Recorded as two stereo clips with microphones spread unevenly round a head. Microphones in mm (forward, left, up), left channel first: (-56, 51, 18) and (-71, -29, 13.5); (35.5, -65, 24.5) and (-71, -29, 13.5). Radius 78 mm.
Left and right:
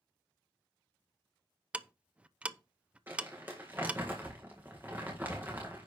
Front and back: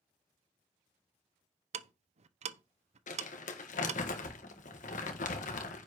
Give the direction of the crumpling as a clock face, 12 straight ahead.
1 o'clock.